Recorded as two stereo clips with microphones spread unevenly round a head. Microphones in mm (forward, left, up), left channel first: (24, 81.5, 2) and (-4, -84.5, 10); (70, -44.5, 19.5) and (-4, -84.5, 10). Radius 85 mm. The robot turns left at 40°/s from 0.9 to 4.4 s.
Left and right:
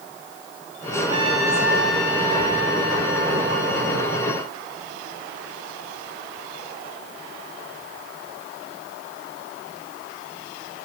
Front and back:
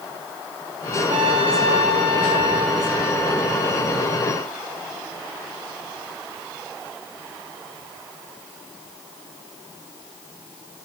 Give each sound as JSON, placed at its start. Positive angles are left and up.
{"t": 1.1, "sound": "a trumpet", "azimuth_deg": -155, "distance_m": 4.0}